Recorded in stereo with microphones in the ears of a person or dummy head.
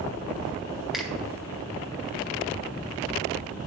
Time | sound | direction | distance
0.9 | a finger snap | 5° right (ahead or behind) | 1.4 m